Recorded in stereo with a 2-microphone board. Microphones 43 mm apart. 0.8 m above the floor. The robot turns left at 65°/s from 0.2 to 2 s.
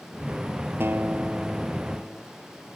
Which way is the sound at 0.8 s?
120° right.